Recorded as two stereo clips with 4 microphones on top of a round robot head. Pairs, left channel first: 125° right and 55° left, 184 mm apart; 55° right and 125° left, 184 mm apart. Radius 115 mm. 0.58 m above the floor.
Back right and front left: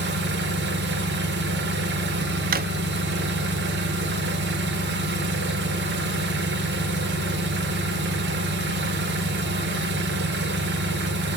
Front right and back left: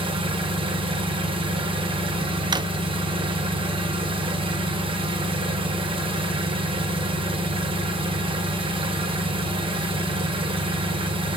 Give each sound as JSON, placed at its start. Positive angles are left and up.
{"t": 0.0, "sound": "an engine running", "azimuth_deg": 65, "distance_m": 1.8}
{"t": 2.5, "sound": "a drawer", "azimuth_deg": 65, "distance_m": 0.5}